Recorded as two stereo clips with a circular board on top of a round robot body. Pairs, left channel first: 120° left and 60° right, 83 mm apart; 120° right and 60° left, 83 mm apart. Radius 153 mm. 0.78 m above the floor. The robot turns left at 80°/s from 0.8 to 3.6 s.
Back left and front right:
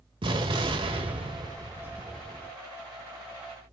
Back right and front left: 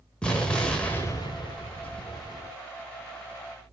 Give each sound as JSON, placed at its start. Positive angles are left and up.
{"t": 0.2, "sound": "an explosion", "azimuth_deg": -40, "distance_m": 1.5}